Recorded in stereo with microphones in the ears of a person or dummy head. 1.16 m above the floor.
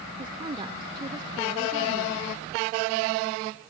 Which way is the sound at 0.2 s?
25° right (ahead or behind).